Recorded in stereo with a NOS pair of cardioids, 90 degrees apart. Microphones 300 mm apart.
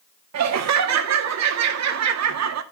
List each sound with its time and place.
0.3 s laughter: 65° right, 2.5 m